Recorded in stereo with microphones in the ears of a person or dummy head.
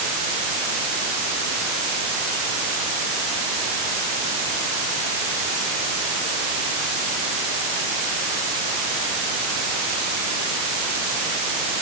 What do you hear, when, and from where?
Only background noise.